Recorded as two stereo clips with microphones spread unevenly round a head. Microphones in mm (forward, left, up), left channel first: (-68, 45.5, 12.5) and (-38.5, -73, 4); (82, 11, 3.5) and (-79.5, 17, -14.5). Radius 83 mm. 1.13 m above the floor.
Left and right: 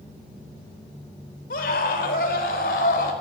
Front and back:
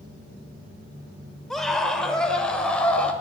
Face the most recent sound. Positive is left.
turn(degrees=80)